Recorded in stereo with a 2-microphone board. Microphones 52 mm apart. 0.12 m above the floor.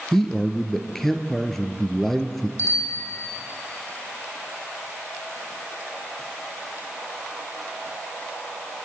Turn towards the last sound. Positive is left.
turn(degrees=60)  # may be behind; listen again after turning